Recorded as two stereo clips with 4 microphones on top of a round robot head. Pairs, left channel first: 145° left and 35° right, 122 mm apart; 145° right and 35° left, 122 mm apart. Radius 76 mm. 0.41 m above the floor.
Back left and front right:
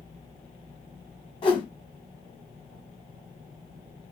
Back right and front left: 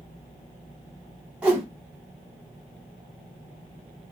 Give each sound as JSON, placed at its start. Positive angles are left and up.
{"t": 1.4, "sound": "a whoosh", "azimuth_deg": 115, "distance_m": 1.0}